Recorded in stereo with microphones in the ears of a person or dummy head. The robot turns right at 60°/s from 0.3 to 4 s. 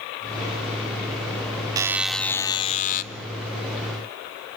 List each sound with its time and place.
1.8 s a buzzer: 20° right, 0.7 m; by 3.0 s 55° left, 0.7 m